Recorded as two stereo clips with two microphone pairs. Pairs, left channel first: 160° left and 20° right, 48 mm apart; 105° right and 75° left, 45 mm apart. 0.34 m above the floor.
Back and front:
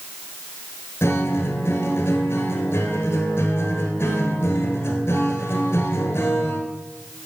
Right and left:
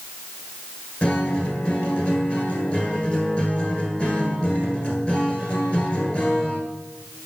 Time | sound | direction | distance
1.0 | a guitar | 170° right | 1.4 m